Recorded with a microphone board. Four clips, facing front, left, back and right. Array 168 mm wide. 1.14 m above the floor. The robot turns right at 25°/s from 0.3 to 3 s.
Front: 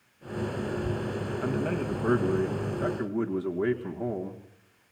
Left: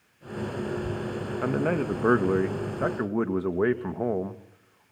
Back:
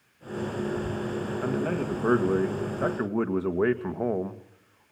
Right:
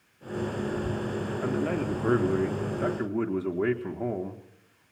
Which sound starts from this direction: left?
A man speaking, at 1.4 s.